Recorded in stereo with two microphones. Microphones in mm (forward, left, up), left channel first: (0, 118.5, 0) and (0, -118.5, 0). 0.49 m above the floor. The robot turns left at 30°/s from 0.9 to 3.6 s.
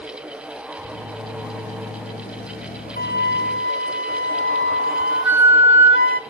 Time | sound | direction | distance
3.0 | a flute | 40° left (ahead or behind) | 0.7 m